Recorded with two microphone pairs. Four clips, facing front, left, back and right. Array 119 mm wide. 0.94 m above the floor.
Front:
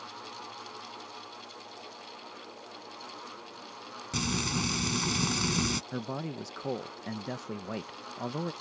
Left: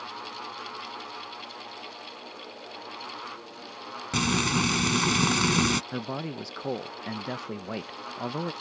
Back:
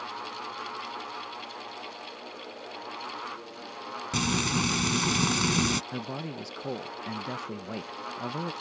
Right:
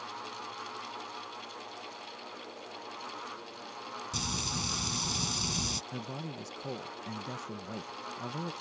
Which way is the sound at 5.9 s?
85° left.